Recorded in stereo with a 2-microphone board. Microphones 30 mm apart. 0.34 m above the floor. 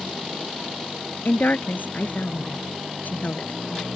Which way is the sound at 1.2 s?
70° left (ahead or behind).